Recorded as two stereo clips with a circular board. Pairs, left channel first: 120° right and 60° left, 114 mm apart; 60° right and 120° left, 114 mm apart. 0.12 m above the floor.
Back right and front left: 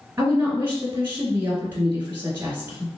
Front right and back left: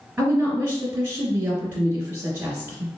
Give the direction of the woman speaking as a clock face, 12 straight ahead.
10 o'clock.